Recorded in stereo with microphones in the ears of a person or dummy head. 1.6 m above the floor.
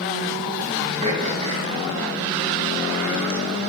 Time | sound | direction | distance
1.0 | throat clearing | 35° right (ahead or behind) | 4.5 m